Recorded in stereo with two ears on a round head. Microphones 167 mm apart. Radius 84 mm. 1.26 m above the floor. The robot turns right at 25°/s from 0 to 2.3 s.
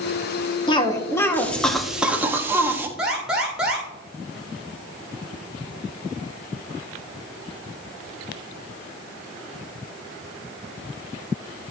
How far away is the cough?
About 1.3 m.